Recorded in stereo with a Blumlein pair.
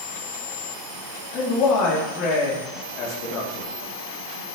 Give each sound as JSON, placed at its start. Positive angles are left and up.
{"t": 1.3, "sound": "a man speaking", "azimuth_deg": 40, "distance_m": 3.5}